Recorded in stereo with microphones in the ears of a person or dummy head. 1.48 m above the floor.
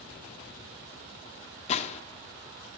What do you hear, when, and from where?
1.7 s a gunshot: 45° left (ahead or behind), 0.6 m